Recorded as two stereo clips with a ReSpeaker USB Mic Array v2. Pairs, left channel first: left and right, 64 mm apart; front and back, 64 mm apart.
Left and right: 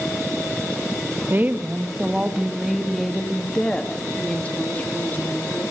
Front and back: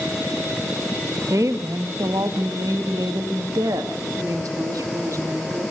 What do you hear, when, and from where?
1.3 s a woman speaking: 145° right, 1.9 m; by 5.7 s 150° left, 3.5 m